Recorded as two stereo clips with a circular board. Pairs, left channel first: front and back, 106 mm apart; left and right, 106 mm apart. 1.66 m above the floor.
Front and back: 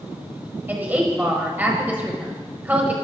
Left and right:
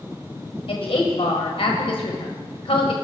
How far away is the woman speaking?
About 1.1 m.